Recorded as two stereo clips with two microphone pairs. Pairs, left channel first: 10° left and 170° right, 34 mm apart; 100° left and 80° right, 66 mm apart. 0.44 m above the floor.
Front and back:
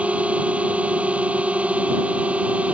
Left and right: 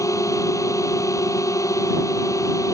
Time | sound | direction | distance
0.0 | a drone | 140° left | ?